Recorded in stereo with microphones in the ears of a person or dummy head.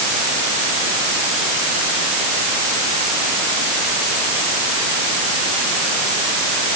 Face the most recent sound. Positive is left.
No sound to turn to.